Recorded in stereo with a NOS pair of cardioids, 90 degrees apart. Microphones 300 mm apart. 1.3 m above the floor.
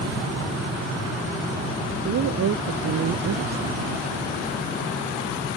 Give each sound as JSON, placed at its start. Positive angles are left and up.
{"t": 2.0, "sound": "a woman speaking", "azimuth_deg": -60}